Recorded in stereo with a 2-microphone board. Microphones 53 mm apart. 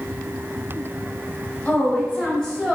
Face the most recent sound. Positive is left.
turn(degrees=5)  # may be behind; listen again after turning